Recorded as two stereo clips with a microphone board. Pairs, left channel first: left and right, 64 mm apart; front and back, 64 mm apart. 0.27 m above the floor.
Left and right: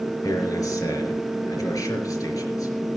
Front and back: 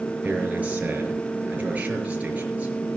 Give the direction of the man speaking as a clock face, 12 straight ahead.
8 o'clock.